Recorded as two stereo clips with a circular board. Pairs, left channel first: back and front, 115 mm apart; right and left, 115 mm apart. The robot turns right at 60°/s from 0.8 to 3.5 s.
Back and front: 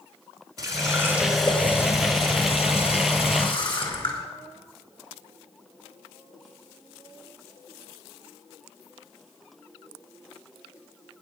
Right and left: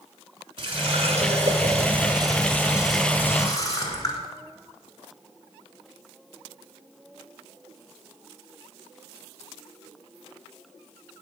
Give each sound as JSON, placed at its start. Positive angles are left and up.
{"t": 0.6, "sound": "a running tap", "azimuth_deg": 55, "distance_m": 1.9}